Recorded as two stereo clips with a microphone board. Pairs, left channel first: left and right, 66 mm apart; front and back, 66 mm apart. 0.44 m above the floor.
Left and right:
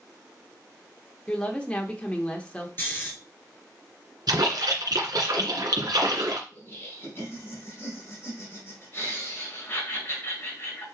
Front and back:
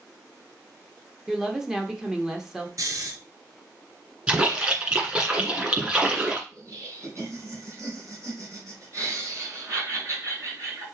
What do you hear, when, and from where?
1.3 s a woman speaking: 115° left, 1.2 m
2.8 s snoring: 150° left, 2.5 m
4.3 s a splash: 105° right, 2.0 m
6.5 s laughter: 140° left, 5 m